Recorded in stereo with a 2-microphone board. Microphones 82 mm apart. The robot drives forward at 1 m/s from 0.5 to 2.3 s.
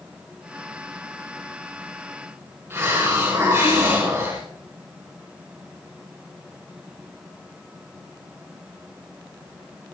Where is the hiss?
25° right (ahead or behind), 6 m.